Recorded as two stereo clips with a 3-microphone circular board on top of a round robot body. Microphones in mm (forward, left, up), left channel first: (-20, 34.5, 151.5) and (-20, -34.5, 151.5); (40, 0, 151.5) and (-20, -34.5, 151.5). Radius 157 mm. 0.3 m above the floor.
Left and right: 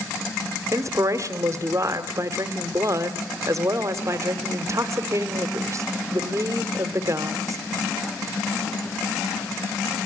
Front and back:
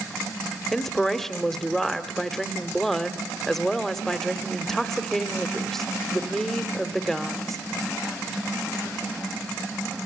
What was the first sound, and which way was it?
A woman speaking, 55° right.